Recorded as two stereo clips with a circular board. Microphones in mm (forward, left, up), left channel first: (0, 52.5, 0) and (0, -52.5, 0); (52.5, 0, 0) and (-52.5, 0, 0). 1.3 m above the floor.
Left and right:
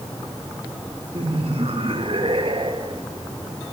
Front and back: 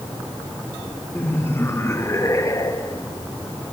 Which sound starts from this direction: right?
Laughter, at 1.1 s.